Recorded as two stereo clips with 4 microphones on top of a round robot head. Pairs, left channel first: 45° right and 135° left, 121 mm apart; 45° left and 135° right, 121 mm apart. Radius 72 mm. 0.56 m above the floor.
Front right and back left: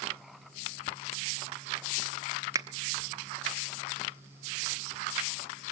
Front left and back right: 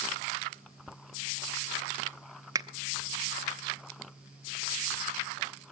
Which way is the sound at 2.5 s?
Straight behind.